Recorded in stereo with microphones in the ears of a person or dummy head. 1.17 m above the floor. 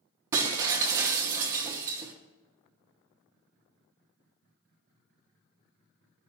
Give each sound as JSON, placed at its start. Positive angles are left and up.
{"t": 0.3, "sound": "breaking glass", "side_deg": -25, "distance_m": 0.7}